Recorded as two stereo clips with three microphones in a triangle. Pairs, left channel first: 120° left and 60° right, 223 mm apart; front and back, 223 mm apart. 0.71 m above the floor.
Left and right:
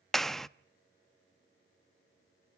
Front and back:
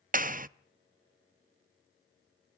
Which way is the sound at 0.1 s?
150° right.